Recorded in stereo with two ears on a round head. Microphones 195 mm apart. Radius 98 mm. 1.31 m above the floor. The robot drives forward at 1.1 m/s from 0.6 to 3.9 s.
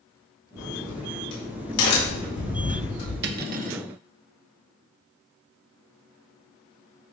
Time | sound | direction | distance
0.6 | a crack | 80° left | 5 m
3.2 | cutlery clinking | 55° right (ahead or behind) | 0.9 m